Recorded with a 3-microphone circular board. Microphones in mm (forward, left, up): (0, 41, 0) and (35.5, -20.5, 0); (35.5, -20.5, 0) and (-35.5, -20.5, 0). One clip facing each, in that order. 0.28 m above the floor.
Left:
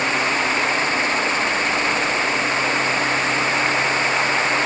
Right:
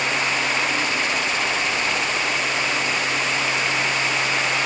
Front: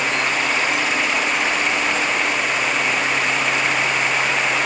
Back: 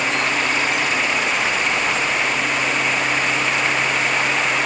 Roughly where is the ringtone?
I don't hear a ringtone.